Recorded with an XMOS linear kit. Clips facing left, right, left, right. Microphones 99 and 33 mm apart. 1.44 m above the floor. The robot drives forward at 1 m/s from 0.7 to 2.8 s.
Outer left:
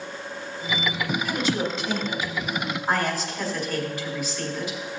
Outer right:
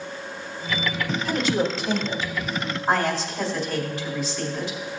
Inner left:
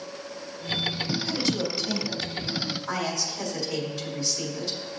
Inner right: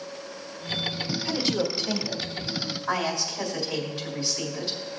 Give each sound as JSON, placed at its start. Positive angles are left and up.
{"t": 1.2, "sound": "a woman speaking", "side_deg": -45, "distance_m": 2.5}